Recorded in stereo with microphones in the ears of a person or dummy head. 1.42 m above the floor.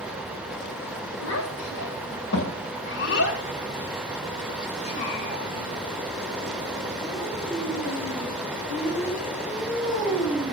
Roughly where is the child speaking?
Left.